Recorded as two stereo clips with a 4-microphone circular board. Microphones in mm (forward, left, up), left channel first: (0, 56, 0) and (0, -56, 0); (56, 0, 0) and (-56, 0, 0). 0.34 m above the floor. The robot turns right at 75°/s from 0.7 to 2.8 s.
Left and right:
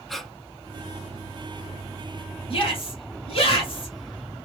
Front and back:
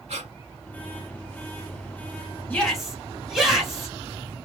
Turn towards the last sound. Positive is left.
turn(degrees=95)